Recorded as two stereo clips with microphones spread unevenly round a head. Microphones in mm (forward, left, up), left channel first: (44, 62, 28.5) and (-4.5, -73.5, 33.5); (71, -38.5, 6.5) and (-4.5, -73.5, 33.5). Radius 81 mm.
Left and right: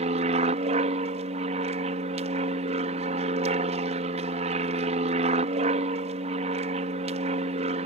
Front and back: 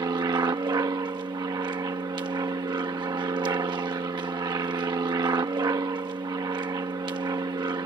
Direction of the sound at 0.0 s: 135° right.